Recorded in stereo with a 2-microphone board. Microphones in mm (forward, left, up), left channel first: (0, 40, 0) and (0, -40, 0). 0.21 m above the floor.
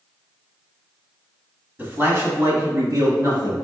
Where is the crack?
I don't hear a crack.